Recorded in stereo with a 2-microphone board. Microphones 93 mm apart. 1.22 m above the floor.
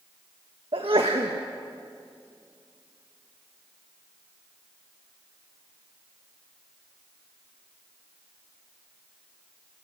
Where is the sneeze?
75° right (ahead or behind), 1.4 m.